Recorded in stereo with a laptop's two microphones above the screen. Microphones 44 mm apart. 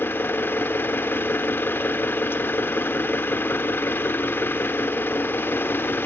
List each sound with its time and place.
0.0 s an engine running: 55° left (ahead or behind), 0.9 m